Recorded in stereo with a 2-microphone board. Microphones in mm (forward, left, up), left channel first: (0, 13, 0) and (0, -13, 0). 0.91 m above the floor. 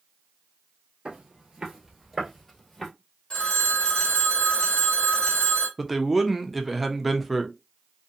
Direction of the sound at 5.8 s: Centre (ahead or behind).